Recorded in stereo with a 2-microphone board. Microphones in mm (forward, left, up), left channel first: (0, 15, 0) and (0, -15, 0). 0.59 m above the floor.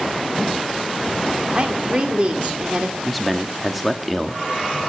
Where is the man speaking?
Centre (ahead or behind), 1.1 m.